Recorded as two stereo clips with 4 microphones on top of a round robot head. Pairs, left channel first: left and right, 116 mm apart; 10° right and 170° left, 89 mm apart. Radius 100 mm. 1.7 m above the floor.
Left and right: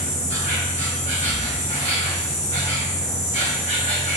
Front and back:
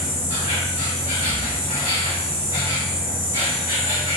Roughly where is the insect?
Behind left.